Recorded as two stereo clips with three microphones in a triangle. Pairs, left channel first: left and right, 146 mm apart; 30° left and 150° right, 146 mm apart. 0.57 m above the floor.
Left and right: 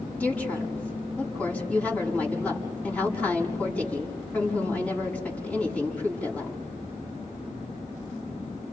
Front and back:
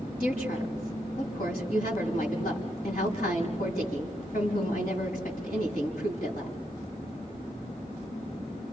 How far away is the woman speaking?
About 5.5 m.